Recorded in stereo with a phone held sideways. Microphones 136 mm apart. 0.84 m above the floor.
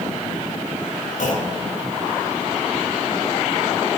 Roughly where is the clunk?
Left.